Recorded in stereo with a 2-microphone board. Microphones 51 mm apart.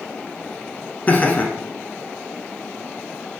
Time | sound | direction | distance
1.1 | laughter | 35° left (ahead or behind) | 1.3 m